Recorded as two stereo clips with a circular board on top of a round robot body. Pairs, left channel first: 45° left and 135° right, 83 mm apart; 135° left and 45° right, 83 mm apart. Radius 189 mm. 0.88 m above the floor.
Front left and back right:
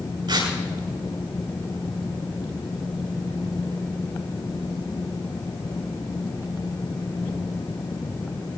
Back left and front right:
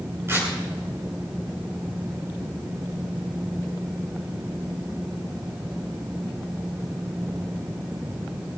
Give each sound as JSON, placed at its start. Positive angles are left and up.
{"t": 0.3, "sound": "tearing paper", "azimuth_deg": -105, "distance_m": 8.0}